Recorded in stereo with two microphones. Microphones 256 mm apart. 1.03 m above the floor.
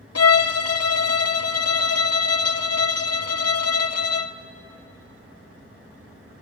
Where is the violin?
70° left (ahead or behind), 0.5 m.